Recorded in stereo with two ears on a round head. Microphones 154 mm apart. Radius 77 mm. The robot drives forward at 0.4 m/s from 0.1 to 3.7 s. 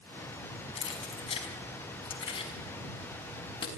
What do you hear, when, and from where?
0.8 s keys jangling: 35° left (ahead or behind), 5 m; by 3.7 s 30° left (ahead or behind), 6 m